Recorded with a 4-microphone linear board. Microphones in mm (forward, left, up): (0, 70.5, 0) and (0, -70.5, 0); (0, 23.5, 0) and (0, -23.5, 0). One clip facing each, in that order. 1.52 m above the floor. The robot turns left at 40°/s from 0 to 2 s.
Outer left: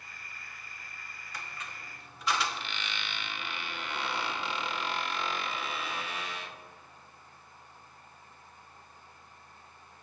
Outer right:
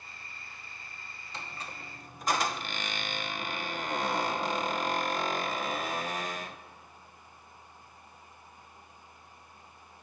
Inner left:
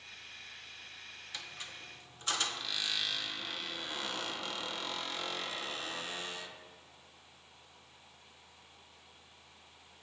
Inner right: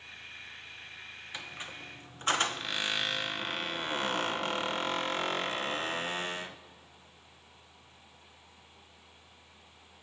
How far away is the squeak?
About 0.7 m.